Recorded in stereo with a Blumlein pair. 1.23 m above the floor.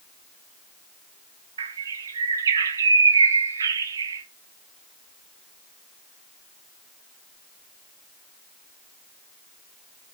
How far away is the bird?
About 0.7 m.